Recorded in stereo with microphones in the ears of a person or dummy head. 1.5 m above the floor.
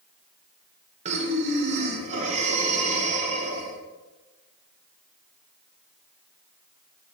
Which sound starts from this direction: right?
Breathing, at 1.1 s.